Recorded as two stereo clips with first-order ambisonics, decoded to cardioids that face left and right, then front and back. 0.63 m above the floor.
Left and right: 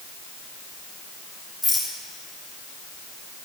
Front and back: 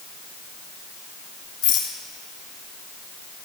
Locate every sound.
1.6 s a rattle: 20° left, 3.5 m